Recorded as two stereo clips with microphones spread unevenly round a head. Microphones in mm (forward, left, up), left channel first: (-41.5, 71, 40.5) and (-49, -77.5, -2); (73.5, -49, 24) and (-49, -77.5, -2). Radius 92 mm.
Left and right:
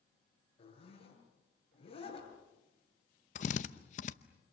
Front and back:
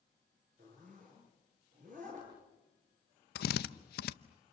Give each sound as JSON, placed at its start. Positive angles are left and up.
{"t": 0.6, "sound": "a zipper", "azimuth_deg": 140, "distance_m": 7.5}
{"t": 3.4, "sound": "a drill", "azimuth_deg": 35, "distance_m": 0.7}